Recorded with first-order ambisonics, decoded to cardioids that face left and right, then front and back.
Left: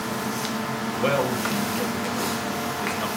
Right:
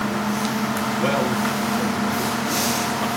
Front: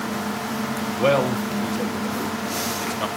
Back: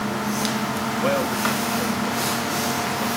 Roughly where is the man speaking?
Ahead.